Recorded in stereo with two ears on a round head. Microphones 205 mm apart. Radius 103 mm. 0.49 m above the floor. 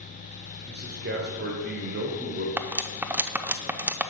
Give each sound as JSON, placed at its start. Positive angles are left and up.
{"t": 0.7, "sound": "a man speaking", "side_deg": -45, "distance_m": 1.5}
{"t": 2.6, "sound": "cutlery clinking", "side_deg": -5, "distance_m": 0.5}